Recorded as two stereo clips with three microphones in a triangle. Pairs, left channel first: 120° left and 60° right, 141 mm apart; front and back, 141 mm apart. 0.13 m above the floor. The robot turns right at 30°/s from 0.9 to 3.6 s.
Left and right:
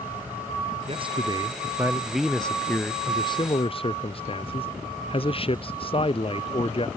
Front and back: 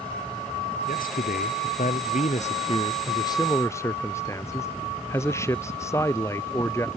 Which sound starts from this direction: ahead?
A man speaking, at 0.9 s.